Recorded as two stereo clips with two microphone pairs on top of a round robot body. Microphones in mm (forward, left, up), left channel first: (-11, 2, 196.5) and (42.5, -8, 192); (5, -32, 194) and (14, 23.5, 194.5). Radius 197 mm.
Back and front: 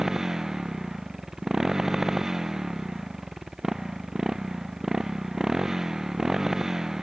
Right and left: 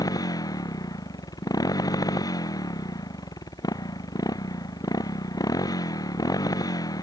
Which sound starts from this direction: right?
A motorcycle, at 0.0 s.